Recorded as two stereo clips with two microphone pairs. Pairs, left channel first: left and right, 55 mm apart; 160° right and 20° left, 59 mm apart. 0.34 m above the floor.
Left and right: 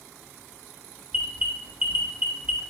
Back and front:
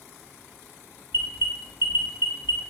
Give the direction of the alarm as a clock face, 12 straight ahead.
1 o'clock.